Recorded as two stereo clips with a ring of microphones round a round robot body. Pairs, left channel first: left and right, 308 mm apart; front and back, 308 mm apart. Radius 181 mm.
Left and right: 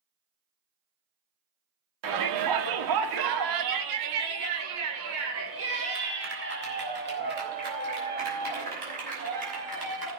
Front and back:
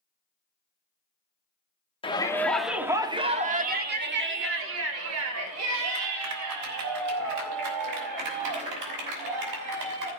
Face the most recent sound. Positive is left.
turn(degrees=-160)